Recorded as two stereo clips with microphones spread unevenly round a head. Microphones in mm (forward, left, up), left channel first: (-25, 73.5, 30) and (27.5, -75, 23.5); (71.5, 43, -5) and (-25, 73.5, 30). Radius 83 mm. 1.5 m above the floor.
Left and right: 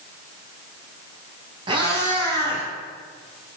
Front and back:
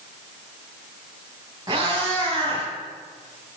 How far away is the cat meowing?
About 5 m.